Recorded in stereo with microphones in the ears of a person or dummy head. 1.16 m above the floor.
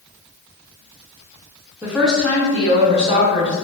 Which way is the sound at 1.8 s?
10° right (ahead or behind).